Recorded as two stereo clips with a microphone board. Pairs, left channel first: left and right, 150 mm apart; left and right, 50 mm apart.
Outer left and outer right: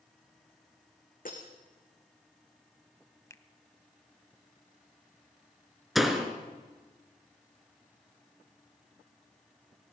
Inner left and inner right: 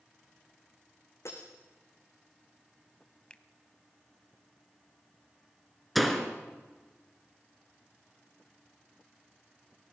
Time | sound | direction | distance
1.2 | breaking glass | 70° left (ahead or behind) | 4 m
3.3 | a finger snap | 20° left (ahead or behind) | 0.8 m
6.0 | a door slam | centre (ahead or behind) | 2 m